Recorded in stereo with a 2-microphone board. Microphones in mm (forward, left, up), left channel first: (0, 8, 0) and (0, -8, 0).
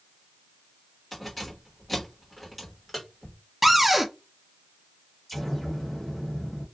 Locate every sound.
1.1 s keys jangling: 5° left (ahead or behind), 1.3 m
3.6 s a cupboard door: 15° right (ahead or behind), 0.6 m
5.3 s an explosion: 10° left (ahead or behind), 1.7 m